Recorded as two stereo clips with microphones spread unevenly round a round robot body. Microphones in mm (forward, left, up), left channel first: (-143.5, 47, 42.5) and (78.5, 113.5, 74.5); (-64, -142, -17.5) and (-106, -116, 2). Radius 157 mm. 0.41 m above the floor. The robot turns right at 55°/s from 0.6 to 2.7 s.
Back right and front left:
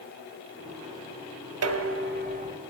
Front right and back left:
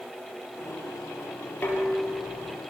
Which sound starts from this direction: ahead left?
Dishes clattering, at 1.6 s.